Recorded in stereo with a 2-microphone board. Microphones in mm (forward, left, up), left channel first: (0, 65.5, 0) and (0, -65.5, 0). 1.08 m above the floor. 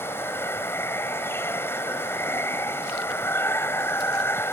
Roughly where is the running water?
Centre.